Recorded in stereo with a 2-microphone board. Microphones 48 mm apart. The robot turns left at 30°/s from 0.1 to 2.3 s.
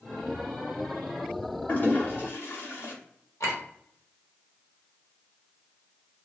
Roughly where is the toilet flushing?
Left.